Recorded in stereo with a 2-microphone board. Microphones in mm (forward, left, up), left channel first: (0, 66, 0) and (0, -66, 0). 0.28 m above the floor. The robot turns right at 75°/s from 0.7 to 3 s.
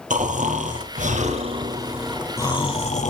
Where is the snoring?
105° right, 3 m; by 3.1 s 70° left, 3 m.